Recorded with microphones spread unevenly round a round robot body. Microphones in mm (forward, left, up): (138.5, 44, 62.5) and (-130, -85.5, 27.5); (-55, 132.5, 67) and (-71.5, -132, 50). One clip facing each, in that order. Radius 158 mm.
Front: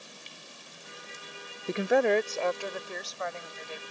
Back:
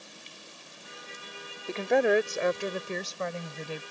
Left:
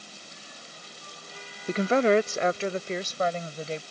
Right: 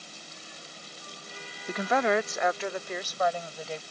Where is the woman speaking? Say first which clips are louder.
Even, left 5 dB; 75° left; by 3.8 s 155° left.